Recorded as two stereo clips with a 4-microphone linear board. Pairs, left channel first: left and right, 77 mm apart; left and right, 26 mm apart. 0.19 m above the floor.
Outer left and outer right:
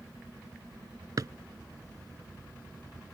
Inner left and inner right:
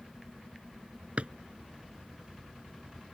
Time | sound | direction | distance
1.2 | a drawer | 55° right (ahead or behind) | ?